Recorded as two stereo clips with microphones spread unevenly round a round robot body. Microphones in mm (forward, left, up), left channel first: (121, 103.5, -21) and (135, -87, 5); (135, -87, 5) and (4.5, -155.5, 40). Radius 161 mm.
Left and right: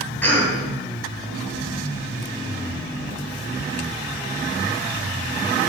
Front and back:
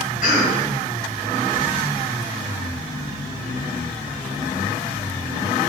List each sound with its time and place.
0.2 s a cough: 15° left, 3.5 m